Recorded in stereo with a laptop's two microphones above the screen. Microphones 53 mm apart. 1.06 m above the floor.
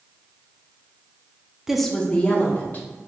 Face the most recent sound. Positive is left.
turn(degrees=35)  # may be behind; listen again after turning